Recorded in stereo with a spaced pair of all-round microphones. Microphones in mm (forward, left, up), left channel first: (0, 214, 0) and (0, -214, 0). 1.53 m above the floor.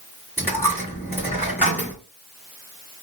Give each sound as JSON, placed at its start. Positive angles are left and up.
{"t": 0.4, "sound": "a dropped coin", "side_deg": -5, "distance_m": 1.4}